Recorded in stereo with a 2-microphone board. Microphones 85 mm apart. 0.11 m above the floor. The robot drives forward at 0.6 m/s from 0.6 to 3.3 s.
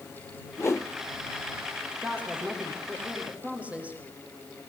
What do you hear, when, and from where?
0.6 s a whoosh: 30° left (ahead or behind), 1.3 m
2.0 s a woman speaking: 15° right (ahead or behind), 6.5 m